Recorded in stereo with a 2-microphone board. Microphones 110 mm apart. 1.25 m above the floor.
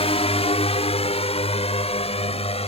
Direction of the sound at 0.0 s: 65° left (ahead or behind).